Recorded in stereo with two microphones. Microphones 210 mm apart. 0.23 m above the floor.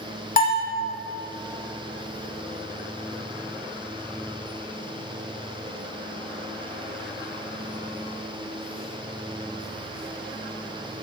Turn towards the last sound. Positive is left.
turn(degrees=40)  # may be behind; listen again after turning